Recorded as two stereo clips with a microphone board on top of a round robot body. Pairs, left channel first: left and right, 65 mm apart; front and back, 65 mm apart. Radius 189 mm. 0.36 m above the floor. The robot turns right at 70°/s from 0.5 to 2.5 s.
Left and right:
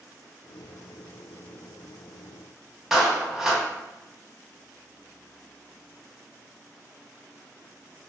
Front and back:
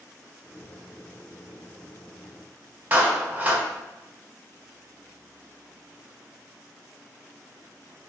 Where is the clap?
165° right, 0.9 m.